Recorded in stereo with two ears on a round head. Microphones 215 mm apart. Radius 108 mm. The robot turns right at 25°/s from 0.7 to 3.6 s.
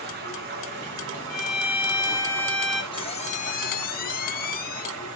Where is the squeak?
20° left (ahead or behind), 0.8 m; by 4.9 s 35° left (ahead or behind), 0.8 m.